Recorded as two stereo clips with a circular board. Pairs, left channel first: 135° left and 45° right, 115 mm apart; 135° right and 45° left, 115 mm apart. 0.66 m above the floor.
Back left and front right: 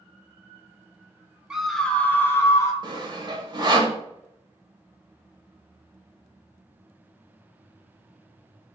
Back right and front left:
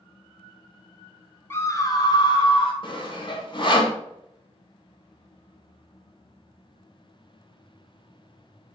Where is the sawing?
95° right, 0.9 m.